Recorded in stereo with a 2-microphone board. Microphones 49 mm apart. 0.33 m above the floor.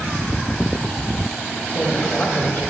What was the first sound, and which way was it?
A man speaking, 45° left (ahead or behind).